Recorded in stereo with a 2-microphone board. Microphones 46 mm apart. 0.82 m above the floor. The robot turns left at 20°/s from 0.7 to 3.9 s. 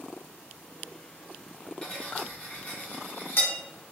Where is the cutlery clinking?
20° left (ahead or behind), 0.9 m; by 3.5 s 55° left (ahead or behind), 0.9 m.